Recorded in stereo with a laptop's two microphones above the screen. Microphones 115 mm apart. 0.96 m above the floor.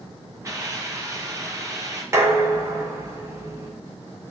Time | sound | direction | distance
0.4 | a hiss | 30° right (ahead or behind) | 1.5 m
2.1 | dishes clattering | 25° right (ahead or behind) | 1.0 m